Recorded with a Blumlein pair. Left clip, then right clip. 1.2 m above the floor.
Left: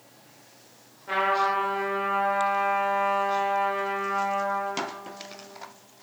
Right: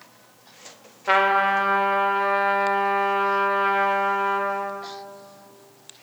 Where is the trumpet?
35° right, 2 m.